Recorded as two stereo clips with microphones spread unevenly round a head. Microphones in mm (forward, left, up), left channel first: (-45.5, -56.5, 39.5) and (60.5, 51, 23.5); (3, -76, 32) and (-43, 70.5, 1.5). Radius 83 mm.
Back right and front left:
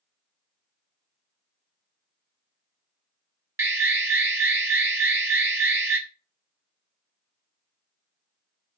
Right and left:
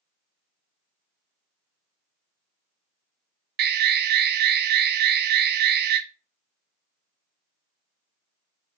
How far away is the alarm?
About 1.1 m.